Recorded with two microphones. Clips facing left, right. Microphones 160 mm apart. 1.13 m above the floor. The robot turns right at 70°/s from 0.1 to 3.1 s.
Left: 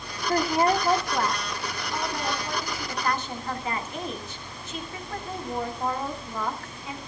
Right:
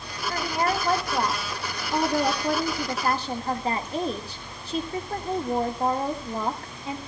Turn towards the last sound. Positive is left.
turn(degrees=-35)